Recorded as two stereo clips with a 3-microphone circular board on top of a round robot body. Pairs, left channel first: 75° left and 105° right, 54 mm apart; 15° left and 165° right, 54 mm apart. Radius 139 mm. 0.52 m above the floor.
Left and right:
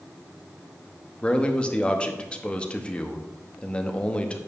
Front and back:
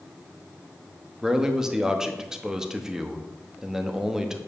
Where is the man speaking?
125° left, 1.2 m.